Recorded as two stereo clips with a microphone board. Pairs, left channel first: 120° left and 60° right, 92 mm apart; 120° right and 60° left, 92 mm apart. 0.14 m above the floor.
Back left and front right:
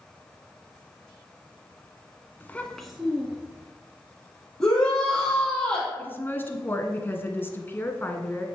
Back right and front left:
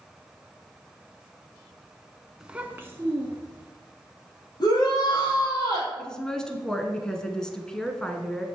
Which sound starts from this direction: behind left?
A child speaking, at 2.4 s.